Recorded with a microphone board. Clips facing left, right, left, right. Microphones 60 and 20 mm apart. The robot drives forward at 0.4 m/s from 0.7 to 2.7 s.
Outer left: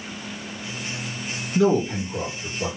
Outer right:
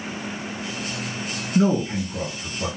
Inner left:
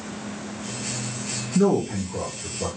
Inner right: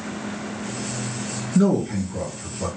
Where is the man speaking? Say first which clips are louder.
Outer left 1 dB, inner right 1 dB; 25° right (ahead or behind), 1.7 m; by 2.7 s 20° right (ahead or behind), 1.9 m.